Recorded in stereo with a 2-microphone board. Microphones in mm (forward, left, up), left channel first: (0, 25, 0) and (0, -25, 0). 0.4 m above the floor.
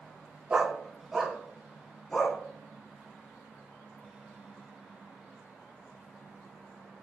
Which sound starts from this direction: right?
A dog barking, at 0.5 s.